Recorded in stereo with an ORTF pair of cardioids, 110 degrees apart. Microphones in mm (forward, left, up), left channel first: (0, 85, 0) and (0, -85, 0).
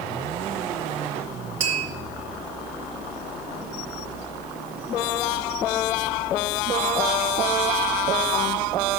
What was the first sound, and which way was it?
Tapping, 55° right.